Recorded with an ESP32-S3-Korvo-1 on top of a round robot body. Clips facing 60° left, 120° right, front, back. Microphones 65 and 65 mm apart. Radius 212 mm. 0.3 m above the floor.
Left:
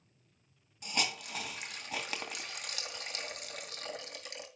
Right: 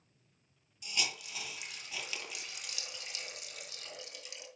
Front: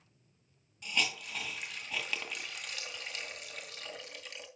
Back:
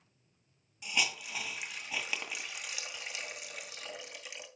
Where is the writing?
No writing in this recording.